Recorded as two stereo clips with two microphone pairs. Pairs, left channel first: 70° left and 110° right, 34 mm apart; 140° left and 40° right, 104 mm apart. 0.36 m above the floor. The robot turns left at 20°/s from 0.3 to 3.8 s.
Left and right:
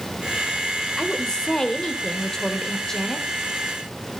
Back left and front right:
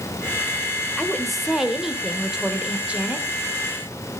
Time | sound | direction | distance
1.0 | a woman speaking | 60° left | 1.5 m